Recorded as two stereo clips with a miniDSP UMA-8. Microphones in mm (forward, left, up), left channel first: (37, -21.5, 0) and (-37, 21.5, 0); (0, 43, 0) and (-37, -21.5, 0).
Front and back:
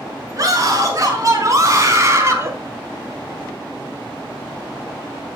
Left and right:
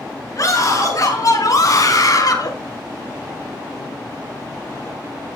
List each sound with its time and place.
0.4 s a scream: 105° left, 6 m; by 2.5 s 95° left, 3 m